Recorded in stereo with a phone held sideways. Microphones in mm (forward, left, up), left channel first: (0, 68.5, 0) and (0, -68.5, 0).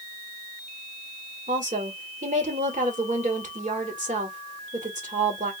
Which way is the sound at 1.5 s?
70° right (ahead or behind).